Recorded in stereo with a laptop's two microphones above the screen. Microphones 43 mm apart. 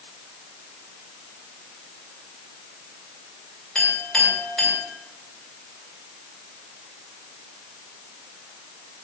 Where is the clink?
15° left (ahead or behind), 3 m.